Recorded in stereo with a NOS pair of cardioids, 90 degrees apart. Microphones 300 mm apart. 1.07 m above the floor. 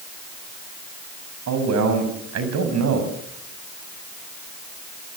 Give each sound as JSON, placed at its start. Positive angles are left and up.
{"t": 1.5, "sound": "a man speaking", "azimuth_deg": -60, "distance_m": 6.0}